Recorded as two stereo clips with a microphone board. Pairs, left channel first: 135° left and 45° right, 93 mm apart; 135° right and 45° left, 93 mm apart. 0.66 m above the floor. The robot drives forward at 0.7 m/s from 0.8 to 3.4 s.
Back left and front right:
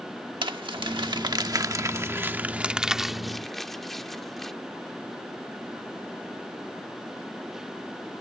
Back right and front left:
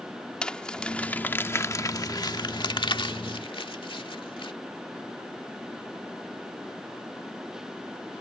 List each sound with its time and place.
0.4 s crumpling: 60° right; by 4.5 s 140° right